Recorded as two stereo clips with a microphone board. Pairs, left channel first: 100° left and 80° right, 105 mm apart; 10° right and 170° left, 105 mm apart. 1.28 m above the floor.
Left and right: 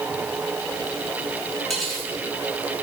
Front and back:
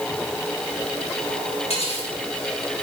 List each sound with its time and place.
1.7 s cutlery clinking: 10° left, 7.5 m